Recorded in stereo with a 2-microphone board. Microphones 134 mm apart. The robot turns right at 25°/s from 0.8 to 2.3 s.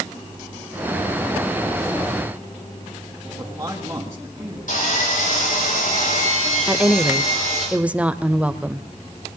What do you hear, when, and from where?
3.4 s a man speaking: 20° right (ahead or behind), 3.5 m
4.7 s sawing: 85° left, 7.5 m
6.7 s a woman speaking: 10° right (ahead or behind), 0.9 m